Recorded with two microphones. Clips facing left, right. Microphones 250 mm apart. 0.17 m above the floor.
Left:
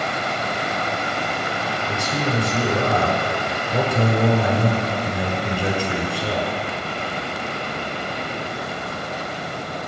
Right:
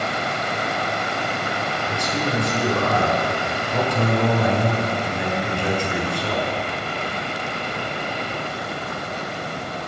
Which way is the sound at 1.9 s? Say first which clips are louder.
Left 1 dB; 10° left (ahead or behind).